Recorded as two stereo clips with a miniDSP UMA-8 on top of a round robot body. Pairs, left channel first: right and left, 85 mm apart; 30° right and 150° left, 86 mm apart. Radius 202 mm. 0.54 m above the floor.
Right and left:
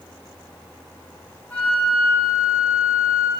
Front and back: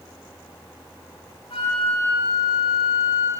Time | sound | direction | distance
1.5 | a flute | 15° right | 8 m